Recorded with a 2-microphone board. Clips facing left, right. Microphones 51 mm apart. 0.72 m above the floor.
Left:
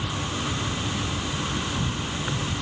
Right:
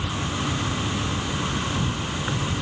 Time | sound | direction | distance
0.0 | an insect | 10° right (ahead or behind) | ?